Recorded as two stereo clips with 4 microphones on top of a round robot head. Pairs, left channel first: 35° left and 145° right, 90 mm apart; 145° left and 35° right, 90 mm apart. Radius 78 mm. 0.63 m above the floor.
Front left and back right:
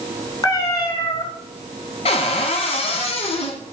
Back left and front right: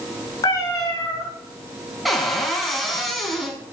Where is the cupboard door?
55° left, 2.5 m.